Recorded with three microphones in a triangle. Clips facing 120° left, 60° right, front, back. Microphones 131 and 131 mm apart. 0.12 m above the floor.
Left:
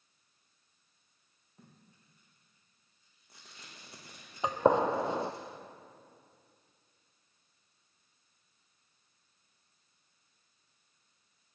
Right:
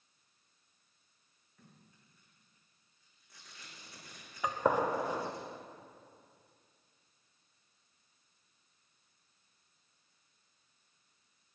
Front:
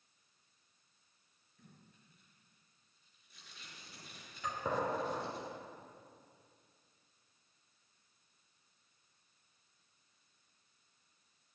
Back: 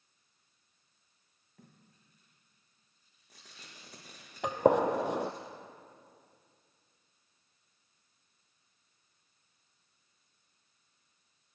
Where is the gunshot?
175° right, 0.8 m.